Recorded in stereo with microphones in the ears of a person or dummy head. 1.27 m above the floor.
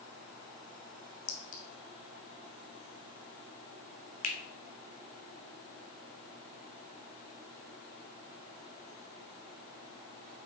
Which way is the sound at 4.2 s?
45° left (ahead or behind).